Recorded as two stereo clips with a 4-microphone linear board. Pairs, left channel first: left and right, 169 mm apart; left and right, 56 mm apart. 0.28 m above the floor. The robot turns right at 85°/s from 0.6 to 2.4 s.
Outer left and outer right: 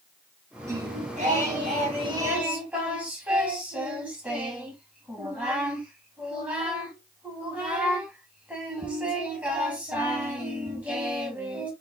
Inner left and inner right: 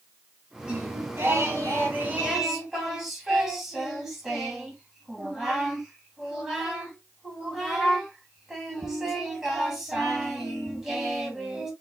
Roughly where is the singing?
Behind.